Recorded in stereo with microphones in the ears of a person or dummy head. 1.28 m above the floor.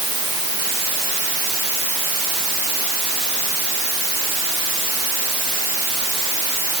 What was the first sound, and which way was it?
Only background noise.